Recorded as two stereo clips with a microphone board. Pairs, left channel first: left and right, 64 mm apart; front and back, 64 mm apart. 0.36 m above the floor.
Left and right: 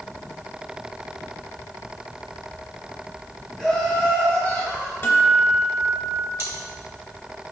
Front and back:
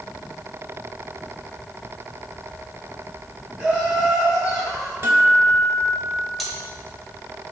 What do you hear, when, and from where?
3.6 s laughter: 140° left, 1.3 m; by 4.9 s 95° left, 1.6 m
5.0 s a guitar: 135° left, 0.6 m
6.4 s cutlery clinking: 90° right, 0.8 m